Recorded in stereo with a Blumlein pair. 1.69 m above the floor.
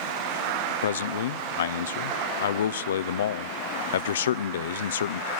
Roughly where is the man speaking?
Ahead left.